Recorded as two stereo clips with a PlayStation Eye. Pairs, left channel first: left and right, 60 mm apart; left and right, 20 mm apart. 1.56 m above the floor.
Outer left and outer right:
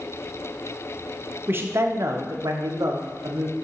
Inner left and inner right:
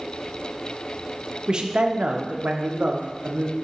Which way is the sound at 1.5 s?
35° right (ahead or behind).